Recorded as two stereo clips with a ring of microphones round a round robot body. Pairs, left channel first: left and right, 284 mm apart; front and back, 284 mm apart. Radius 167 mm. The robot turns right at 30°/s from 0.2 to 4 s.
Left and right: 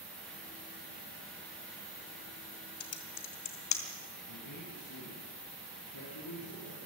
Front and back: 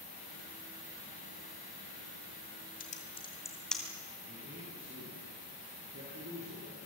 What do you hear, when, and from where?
2.8 s typing on a keyboard: 60° left, 2 m; by 3.8 s 90° left, 2 m
4.3 s a man speaking: 120° left, 9 m